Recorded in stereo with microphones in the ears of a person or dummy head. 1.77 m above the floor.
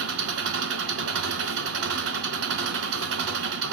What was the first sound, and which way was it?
An engine running, 70° right (ahead or behind).